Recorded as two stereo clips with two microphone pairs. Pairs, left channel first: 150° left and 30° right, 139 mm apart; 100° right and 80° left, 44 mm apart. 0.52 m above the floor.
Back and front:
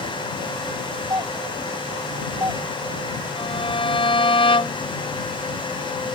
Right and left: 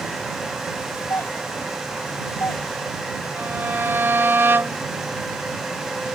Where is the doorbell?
90° right.